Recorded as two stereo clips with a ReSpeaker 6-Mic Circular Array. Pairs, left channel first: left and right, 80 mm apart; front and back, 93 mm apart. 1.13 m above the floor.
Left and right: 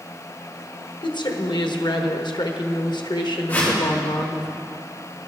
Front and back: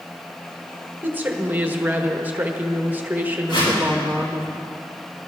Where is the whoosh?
25° left, 5.5 m.